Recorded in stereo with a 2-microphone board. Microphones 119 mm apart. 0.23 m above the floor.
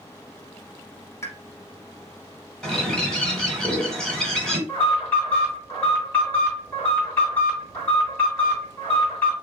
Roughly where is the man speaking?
I don't hear a man speaking.